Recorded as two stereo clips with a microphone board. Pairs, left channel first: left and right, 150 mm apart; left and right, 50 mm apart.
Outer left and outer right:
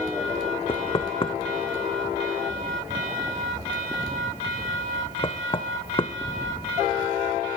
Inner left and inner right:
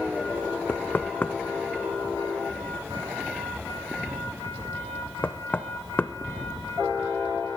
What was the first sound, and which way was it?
Knocking, 40° left (ahead or behind).